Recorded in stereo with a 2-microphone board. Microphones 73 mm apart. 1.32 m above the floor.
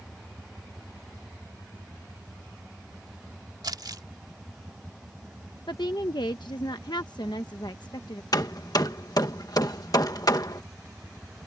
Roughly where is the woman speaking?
Left.